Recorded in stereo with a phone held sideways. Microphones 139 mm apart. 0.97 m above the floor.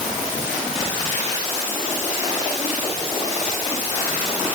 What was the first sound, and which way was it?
Only background noise.